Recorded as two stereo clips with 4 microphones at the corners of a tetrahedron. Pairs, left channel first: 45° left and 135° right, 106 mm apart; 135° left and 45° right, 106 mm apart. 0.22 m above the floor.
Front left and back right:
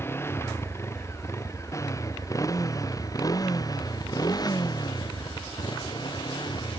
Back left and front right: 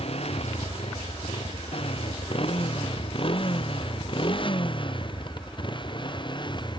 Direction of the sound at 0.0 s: 115° left.